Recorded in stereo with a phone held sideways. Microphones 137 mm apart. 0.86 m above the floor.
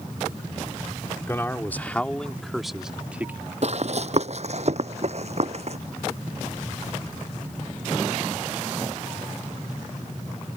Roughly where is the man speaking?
Centre.